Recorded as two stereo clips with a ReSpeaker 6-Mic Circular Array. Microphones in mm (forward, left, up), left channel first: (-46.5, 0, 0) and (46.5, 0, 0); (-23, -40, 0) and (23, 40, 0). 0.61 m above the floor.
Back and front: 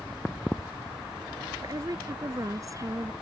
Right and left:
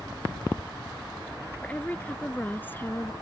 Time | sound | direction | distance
1.6 | a woman speaking | 45° right | ?